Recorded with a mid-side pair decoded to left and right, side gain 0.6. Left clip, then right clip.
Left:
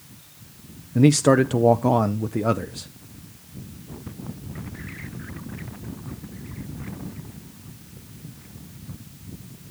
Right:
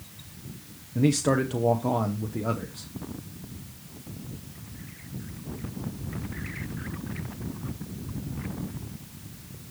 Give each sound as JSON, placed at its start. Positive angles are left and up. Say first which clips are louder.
{"t": 0.9, "sound": "a man speaking", "louder": "left 7 dB", "azimuth_deg": 40, "distance_m": 0.6}